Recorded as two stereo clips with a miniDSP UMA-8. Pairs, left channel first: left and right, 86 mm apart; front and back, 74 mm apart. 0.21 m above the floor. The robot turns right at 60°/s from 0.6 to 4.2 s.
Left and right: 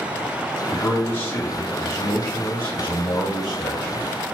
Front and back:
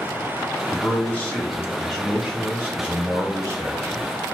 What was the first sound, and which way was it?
A man speaking, 5° left.